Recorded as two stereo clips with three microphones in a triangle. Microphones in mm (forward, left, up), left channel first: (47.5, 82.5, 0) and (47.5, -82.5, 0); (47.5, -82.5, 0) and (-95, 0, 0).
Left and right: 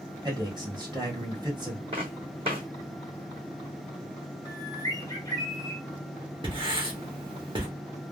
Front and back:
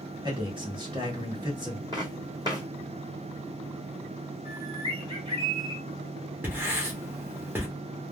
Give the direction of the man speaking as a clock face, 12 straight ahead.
5 o'clock.